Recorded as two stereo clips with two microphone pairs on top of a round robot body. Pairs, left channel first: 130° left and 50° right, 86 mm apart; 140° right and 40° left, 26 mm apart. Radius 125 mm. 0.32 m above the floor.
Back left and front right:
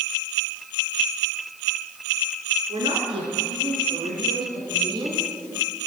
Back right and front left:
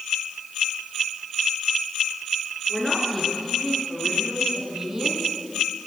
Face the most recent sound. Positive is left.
turn(degrees=-25)